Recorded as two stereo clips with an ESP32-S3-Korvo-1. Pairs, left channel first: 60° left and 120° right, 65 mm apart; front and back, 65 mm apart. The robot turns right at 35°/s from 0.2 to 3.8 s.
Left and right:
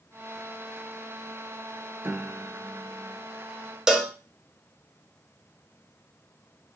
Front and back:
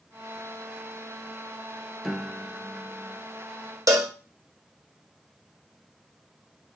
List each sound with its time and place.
2.0 s a piano: 95° right, 0.5 m; by 3.2 s 55° right, 0.5 m
3.9 s a cowbell: 160° left, 0.6 m